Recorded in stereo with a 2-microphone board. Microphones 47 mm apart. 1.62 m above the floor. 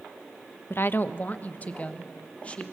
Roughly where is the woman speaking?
Left.